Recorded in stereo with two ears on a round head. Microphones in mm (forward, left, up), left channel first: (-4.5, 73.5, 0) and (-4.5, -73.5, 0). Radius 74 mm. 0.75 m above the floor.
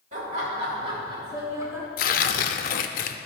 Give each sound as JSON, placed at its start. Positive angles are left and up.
{"t": 0.1, "sound": "laughter", "side_deg": -45, "distance_m": 2.5}
{"t": 2.0, "sound": "tearing paper", "side_deg": 55, "distance_m": 0.5}